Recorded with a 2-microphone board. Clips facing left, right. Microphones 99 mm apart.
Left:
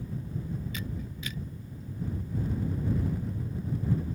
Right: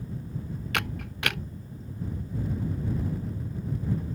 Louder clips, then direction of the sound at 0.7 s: Right 5 dB; 70° right (ahead or behind).